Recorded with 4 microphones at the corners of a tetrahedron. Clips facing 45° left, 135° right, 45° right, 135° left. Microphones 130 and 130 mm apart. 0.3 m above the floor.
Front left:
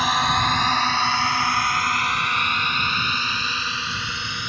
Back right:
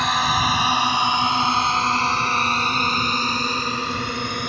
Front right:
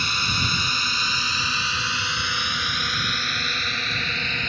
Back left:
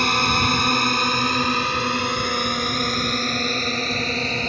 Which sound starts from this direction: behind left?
A drone, at 0.0 s.